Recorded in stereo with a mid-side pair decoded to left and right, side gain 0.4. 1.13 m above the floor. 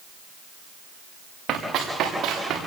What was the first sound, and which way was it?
Running footsteps, 70° right.